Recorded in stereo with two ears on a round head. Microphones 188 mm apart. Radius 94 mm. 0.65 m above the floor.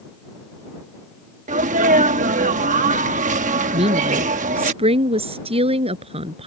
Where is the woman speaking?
30° right (ahead or behind).